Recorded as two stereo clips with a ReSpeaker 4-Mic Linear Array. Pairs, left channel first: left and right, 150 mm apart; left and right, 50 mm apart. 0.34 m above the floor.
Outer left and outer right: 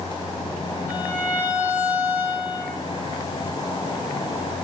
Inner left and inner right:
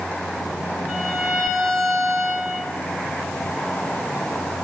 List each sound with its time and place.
0.9 s a violin: 10° right (ahead or behind), 6 m